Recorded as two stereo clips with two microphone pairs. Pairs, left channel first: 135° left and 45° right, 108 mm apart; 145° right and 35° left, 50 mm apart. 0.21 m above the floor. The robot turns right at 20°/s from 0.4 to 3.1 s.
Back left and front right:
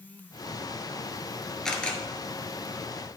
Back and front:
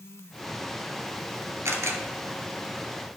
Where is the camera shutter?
50° left, 1.4 m; by 2.0 s 55° left, 1.4 m.